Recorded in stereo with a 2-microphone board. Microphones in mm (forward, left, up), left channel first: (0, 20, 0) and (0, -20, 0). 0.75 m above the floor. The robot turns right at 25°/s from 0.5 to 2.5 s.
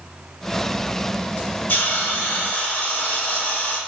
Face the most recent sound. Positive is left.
turn(degrees=40)  # may be behind; listen again after turning